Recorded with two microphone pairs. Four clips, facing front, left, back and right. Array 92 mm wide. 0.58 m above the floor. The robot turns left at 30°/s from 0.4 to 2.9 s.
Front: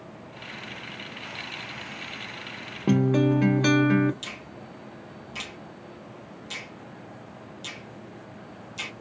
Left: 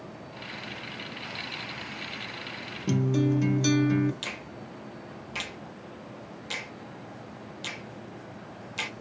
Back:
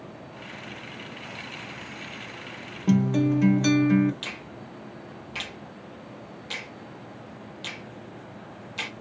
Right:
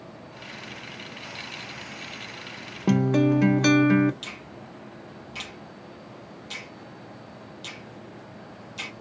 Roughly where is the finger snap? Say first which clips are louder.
Left 1 dB, back 1 dB; behind left.